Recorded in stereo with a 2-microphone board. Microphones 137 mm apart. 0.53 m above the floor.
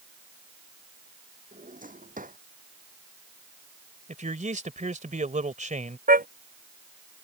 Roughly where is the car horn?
Right.